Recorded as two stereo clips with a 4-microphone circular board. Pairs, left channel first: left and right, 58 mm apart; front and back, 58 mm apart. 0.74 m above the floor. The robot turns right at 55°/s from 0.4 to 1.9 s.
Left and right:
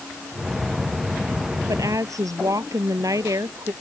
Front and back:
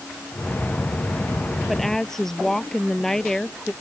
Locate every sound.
1.7 s a woman speaking: 95° right; by 3.7 s 85° right